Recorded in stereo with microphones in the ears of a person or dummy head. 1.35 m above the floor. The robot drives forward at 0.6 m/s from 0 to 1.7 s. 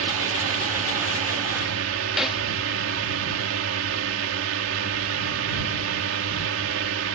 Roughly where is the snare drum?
Centre.